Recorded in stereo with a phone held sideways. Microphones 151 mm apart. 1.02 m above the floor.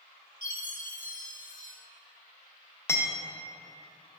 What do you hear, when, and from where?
0.4 s a chime: 65° left (ahead or behind), 1.0 m
2.9 s hammering: 15° left (ahead or behind), 0.7 m